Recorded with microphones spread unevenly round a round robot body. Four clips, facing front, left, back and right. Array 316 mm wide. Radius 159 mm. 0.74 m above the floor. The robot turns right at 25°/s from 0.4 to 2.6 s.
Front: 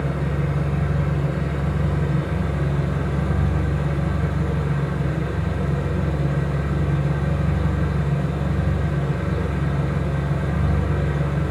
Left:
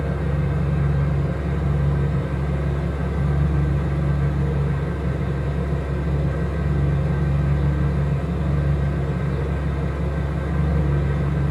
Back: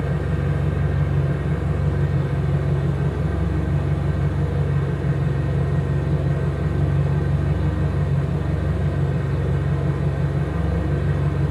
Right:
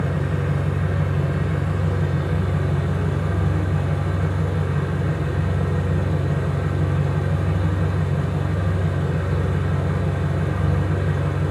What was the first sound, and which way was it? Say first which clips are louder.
An engine running: right 1 dB, even; 130° right.